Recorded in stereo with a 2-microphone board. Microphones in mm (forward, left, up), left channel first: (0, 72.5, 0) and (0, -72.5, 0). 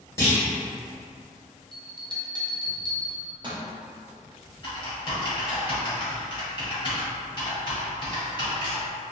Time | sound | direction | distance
0.2 | a clunk | 20° left (ahead or behind) | 1.4 m
1.7 | a bell | 30° right (ahead or behind) | 0.5 m
4.6 | typing on a keyboard | 35° left (ahead or behind) | 1.2 m